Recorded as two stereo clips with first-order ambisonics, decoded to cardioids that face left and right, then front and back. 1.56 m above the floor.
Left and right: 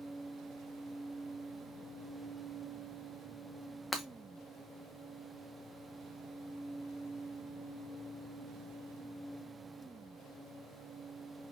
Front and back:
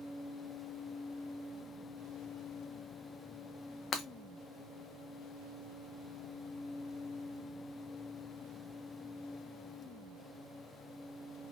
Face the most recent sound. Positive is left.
turn(degrees=5)